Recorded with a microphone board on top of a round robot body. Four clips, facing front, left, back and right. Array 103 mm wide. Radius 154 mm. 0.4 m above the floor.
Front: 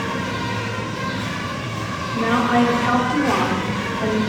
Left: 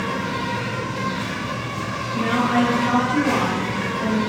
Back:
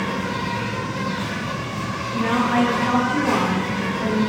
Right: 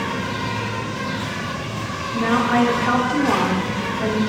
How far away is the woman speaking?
About 0.8 m.